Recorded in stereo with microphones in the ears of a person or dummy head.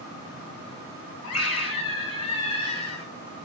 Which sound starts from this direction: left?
A scream, at 1.2 s.